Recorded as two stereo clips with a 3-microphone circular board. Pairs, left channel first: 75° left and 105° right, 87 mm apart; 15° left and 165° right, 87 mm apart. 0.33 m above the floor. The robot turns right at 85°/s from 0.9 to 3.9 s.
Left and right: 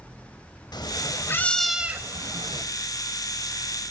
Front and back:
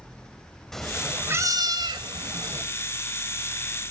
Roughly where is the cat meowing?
Left.